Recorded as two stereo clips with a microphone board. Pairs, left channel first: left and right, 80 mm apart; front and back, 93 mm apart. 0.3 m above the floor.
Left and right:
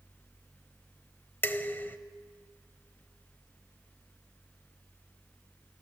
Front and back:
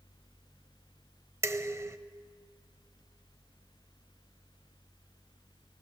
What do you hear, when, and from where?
1.4 s dishes clattering: 145° left, 0.7 m